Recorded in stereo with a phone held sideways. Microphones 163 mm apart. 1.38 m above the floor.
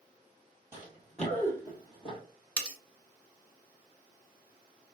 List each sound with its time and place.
0.7 s running footsteps: 15° right (ahead or behind), 1.4 m; by 2.2 s 35° left (ahead or behind), 1.9 m
2.6 s cutlery clinking: 5° left (ahead or behind), 0.7 m